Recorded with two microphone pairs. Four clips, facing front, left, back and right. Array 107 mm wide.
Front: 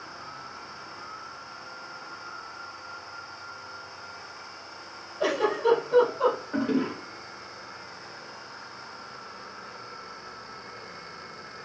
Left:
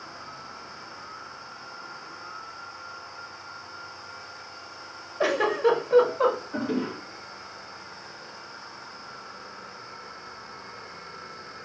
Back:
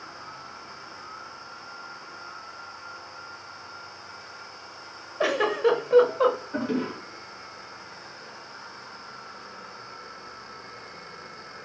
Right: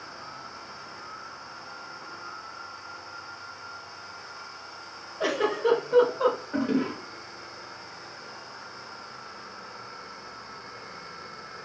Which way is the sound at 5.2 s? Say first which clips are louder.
Left 3 dB, back 2 dB; 145° left.